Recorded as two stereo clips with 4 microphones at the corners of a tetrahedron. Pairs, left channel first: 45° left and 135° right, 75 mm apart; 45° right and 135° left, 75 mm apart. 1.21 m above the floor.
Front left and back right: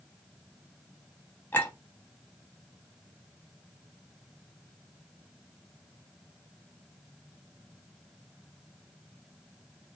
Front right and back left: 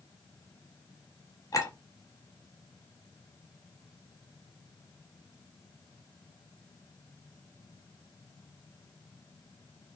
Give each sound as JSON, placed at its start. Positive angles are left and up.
{"t": 1.5, "sound": "a clink", "azimuth_deg": -15, "distance_m": 0.9}